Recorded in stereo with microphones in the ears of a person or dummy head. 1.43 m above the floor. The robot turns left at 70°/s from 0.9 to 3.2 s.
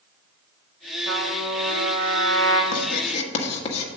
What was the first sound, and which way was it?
A trumpet, 90° right.